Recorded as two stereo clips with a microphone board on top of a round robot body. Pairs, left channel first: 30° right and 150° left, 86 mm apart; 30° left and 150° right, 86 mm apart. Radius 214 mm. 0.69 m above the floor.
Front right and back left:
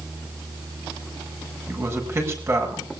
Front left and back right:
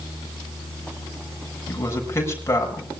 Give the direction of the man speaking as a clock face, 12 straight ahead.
9 o'clock.